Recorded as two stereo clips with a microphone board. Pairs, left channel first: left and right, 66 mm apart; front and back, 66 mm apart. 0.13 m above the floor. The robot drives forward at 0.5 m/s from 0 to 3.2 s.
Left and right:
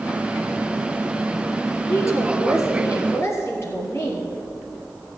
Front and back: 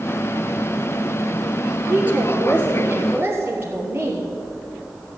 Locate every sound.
1.9 s a woman speaking: 120° left, 3 m; by 4.3 s 130° left, 3.5 m